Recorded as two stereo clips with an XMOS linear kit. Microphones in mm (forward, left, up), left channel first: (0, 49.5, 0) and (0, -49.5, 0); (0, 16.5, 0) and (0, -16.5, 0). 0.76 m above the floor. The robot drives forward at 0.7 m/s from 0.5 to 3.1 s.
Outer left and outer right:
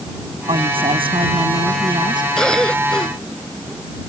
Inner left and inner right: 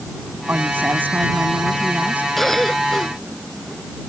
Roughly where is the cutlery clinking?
I don't hear cutlery clinking.